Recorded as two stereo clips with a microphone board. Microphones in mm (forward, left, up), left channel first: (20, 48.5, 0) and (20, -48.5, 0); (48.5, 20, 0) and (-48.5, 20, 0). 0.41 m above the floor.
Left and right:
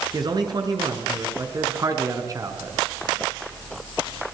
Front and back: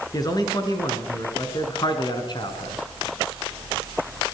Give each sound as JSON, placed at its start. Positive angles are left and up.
{"t": 0.1, "sound": "a man speaking", "azimuth_deg": -50, "distance_m": 6.0}